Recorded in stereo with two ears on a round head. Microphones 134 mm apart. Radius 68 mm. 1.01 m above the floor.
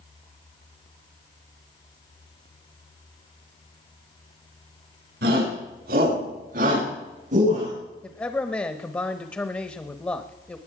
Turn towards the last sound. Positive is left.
turn(degrees=15)  # may be behind; listen again after turning